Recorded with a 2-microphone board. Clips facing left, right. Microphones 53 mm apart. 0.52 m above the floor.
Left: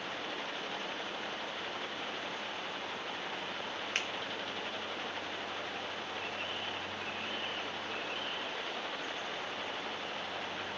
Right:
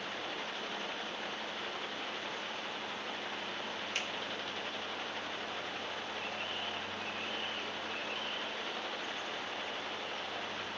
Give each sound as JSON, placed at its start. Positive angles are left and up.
{"t": 4.0, "sound": "a finger snap", "side_deg": 45, "distance_m": 0.8}